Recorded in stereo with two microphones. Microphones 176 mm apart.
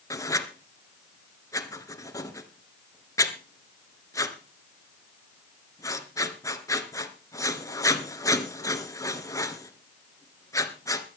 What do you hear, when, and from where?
0.1 s writing: 15° left (ahead or behind), 1.6 m